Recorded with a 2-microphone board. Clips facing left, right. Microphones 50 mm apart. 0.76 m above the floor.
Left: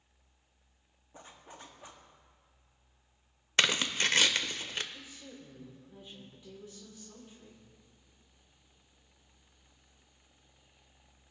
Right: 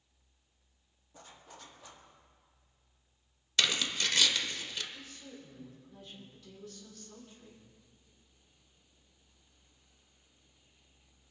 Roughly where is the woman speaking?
Left.